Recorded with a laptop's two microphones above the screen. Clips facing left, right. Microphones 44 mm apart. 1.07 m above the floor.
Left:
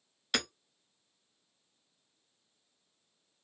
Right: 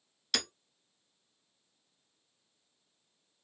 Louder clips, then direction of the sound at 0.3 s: Left 2 dB; 20° left (ahead or behind).